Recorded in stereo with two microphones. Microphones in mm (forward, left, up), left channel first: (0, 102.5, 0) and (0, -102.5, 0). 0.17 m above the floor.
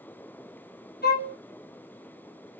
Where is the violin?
55° left (ahead or behind), 1.7 m.